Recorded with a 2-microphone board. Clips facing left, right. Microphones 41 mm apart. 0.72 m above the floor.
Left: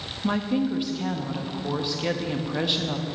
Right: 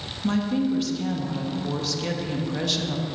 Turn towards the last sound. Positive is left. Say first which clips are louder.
# right 1 dB
turn(degrees=20)  # may be behind; listen again after turning